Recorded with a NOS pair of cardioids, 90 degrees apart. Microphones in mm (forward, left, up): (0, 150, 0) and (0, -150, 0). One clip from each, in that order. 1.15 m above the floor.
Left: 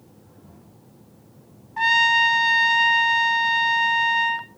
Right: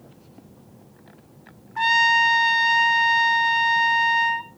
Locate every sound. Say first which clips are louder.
1.8 s a trumpet: even; 5° right, 1.7 m